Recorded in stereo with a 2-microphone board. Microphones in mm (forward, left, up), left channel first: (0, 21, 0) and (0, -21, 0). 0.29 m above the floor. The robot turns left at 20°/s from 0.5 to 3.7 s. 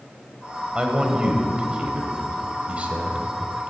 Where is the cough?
I don't hear a cough.